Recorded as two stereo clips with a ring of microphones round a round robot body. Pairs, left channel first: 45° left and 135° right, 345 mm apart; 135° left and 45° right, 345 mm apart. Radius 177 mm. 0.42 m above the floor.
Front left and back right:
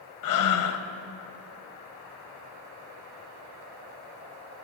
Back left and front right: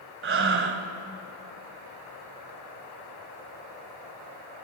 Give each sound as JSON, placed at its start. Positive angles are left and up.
{"t": 0.2, "sound": "breathing", "azimuth_deg": 10, "distance_m": 1.3}